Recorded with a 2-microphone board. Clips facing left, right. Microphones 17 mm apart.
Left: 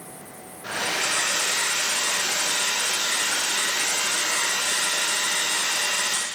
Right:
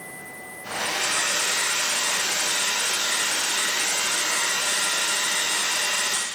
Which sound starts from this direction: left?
A hair dryer, at 0.6 s.